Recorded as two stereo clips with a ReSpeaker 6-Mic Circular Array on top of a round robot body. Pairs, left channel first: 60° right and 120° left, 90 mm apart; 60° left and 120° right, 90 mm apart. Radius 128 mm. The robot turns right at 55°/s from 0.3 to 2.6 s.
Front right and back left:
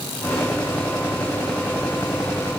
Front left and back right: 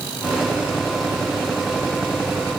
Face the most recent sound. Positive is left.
No sound to turn to.